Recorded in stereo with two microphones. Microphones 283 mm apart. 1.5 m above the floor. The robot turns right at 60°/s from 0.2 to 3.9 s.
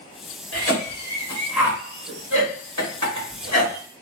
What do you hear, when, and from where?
0.5 s a cough: 60° left (ahead or behind), 1.3 m; by 3.8 s 40° right (ahead or behind), 1.3 m